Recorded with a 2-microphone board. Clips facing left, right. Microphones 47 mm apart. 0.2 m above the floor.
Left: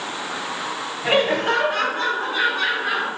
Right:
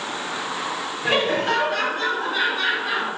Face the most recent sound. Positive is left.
turn(degrees=35)  # may be behind; listen again after turning